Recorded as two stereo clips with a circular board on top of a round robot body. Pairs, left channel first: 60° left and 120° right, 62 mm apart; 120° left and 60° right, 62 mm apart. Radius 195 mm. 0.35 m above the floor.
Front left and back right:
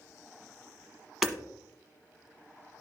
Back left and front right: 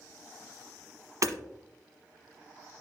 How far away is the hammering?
About 1.3 m.